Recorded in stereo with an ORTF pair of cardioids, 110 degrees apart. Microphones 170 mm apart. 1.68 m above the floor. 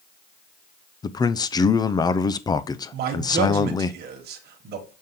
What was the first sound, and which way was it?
A man speaking, 20° left.